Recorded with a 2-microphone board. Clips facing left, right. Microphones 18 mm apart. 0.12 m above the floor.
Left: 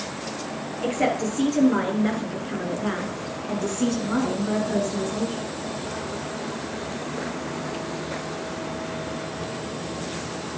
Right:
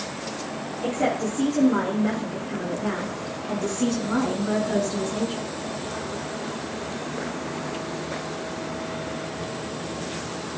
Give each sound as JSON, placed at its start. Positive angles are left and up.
{"t": 0.8, "sound": "a woman speaking", "side_deg": 55, "distance_m": 3.0}